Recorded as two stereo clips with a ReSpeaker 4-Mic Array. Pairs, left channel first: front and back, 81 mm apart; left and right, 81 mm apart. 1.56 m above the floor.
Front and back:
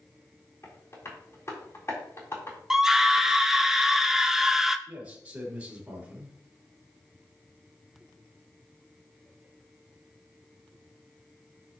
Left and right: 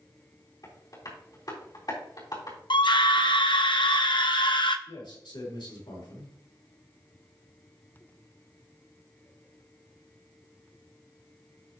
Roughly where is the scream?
Left.